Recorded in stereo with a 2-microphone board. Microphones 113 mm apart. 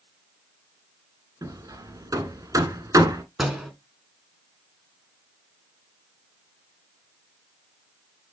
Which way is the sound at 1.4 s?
30° right (ahead or behind).